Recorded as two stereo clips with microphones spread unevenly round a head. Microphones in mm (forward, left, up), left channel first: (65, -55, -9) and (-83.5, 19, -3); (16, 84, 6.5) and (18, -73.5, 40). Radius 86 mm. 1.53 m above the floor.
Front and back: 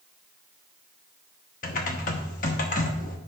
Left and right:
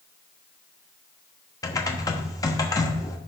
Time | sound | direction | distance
1.6 | typing on a keyboard | 20° left | 1.1 m